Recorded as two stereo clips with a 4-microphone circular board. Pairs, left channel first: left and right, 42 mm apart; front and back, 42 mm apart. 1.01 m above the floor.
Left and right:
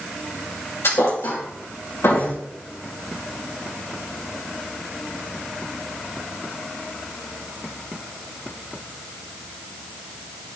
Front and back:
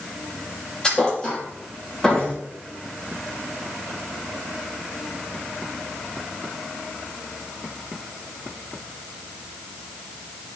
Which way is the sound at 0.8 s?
70° left.